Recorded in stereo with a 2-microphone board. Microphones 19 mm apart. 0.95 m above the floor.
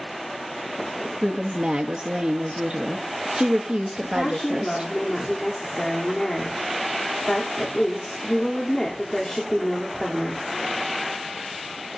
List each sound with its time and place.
1.2 s a woman speaking: 70° right (ahead or behind), 0.8 m
4.0 s a woman speaking: 30° left (ahead or behind), 3 m